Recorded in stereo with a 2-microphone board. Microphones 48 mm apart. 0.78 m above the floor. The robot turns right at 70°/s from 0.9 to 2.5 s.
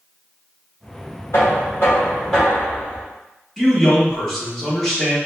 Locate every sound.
1.3 s knocking: 105° left, 1.8 m; by 3.0 s 175° right, 1.8 m
3.6 s a man speaking: 10° left (ahead or behind), 1.5 m